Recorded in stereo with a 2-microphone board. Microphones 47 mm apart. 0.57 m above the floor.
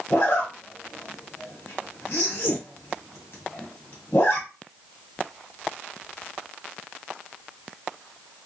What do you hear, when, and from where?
0.1 s a zipper: 55° left (ahead or behind), 1.9 m